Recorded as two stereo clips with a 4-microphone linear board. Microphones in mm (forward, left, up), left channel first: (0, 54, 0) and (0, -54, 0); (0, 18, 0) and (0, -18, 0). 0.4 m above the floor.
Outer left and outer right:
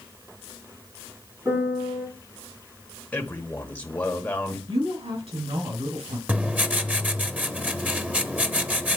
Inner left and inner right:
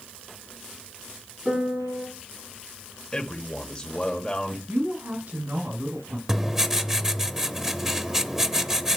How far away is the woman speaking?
About 4 m.